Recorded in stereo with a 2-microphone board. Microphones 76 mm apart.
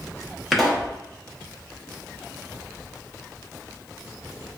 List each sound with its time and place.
0.5 s a pop: centre (ahead or behind), 0.8 m